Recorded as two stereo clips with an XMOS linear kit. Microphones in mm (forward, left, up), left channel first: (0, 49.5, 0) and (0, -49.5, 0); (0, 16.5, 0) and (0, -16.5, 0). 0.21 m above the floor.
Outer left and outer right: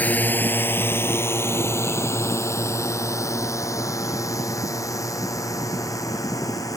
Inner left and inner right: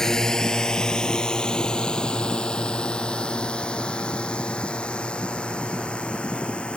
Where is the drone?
15° left (ahead or behind); by 6.8 s 35° left (ahead or behind).